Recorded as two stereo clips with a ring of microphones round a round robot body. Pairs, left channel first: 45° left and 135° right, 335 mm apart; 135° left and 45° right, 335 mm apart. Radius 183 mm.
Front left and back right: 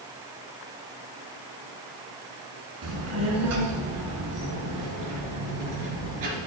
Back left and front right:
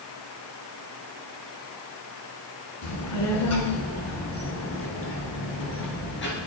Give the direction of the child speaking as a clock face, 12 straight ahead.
6 o'clock.